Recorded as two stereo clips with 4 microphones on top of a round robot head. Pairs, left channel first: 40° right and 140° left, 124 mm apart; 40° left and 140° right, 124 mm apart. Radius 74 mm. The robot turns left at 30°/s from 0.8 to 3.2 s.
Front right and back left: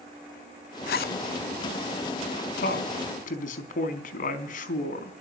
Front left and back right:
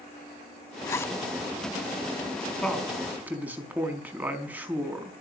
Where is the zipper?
25° right, 0.7 m; by 1.2 s 35° right, 0.7 m.